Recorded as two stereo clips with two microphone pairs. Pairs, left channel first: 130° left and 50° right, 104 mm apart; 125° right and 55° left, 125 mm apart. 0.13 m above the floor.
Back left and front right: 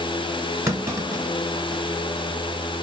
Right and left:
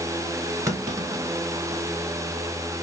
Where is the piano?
No piano in this recording.